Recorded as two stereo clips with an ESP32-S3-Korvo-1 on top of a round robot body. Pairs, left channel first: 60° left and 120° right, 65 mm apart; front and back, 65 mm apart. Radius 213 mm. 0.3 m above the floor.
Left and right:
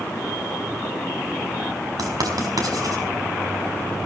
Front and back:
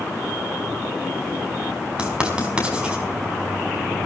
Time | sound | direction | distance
2.0 | writing | 105° right | 5 m